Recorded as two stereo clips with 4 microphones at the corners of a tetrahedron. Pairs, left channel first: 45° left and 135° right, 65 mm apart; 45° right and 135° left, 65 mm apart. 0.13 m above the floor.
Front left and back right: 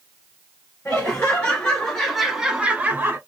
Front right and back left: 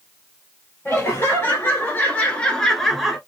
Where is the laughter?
10° right, 1.7 m; by 3.2 s 140° right, 1.2 m.